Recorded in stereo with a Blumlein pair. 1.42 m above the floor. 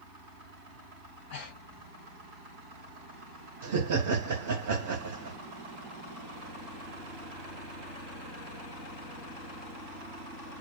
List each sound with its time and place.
1.0 s breathing: 50° left, 1.3 m
3.6 s laughter: 60° right, 0.6 m